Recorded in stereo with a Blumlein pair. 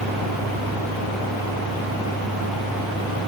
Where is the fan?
10° right.